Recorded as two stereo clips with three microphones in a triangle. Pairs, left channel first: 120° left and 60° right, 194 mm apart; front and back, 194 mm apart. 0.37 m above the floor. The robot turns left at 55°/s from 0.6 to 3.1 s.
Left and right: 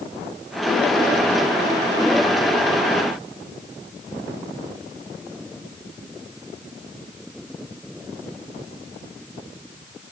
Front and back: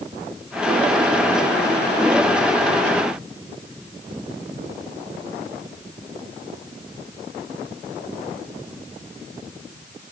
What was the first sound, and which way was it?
Only background noise.